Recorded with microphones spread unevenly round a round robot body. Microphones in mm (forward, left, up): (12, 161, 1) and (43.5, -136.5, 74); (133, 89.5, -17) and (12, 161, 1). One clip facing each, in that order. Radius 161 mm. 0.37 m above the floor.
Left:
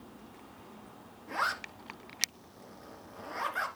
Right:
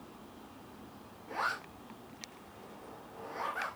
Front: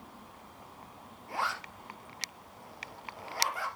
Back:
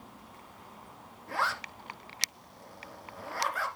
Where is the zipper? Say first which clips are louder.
Left 1 dB, back 2 dB; 160° left, 2.0 m.